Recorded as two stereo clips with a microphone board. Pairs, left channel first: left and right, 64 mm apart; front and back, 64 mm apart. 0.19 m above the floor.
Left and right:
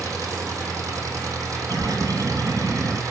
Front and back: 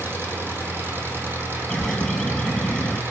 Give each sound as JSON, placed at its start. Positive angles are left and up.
{"t": 0.0, "sound": "an engine running", "azimuth_deg": -125, "distance_m": 2.5}
{"t": 1.7, "sound": "a bird", "azimuth_deg": -85, "distance_m": 2.0}